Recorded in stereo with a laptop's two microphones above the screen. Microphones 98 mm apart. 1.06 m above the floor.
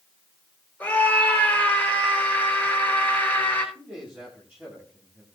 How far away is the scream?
About 4 m.